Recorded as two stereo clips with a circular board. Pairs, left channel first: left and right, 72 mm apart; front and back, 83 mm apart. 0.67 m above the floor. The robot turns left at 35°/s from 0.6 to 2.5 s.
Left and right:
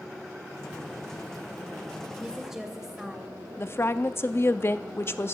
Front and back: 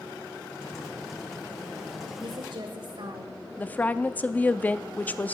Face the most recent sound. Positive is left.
turn(degrees=60)